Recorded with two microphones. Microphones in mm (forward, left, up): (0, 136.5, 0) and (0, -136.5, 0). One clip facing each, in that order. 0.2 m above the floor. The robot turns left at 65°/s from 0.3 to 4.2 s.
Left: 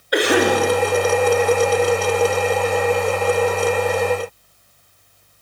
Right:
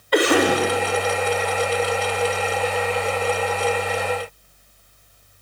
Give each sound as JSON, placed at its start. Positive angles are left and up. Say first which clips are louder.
{"t": 0.1, "sound": "a cough", "louder": "left 1 dB", "side_deg": 15, "distance_m": 1.0}